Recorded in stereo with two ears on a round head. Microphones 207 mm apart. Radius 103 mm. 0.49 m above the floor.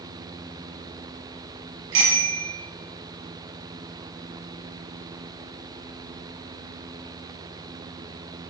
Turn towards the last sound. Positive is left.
turn(degrees=-60)  # may be behind; listen again after turning